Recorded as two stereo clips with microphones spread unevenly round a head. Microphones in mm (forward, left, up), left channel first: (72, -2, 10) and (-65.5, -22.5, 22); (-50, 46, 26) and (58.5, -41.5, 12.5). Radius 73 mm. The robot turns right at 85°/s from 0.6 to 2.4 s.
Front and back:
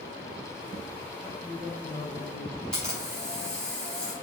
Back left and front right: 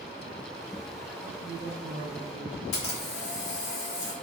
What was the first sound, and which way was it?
A man speaking, 105° right.